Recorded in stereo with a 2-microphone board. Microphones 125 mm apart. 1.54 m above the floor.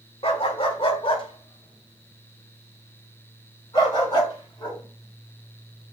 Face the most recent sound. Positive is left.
turn(degrees=35)  # may be behind; listen again after turning